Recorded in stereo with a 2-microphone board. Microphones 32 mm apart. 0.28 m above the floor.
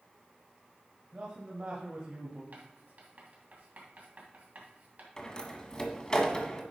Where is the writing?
50° right (ahead or behind), 2.5 m.